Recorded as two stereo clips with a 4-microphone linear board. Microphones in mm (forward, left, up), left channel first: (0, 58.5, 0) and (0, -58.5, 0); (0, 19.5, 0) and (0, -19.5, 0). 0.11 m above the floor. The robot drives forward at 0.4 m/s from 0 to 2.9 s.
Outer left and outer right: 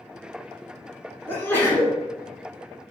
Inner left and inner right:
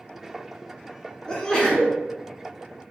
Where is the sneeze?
20° left (ahead or behind), 1.1 m.